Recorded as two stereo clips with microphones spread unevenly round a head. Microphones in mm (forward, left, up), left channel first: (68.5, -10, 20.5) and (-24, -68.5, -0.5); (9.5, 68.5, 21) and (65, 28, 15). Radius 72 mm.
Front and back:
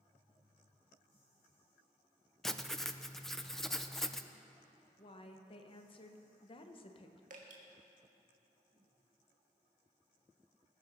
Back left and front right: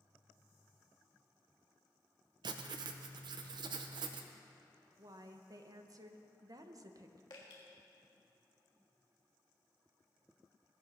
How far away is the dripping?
About 1.5 m.